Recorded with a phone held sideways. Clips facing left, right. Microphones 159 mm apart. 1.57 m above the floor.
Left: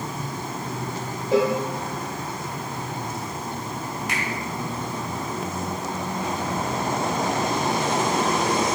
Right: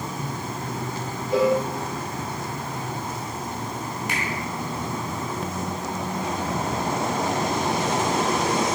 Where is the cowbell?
85° left, 1.0 m.